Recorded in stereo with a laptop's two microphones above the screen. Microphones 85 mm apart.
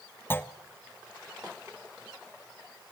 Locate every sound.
0.3 s a clunk: 25° left (ahead or behind), 1.2 m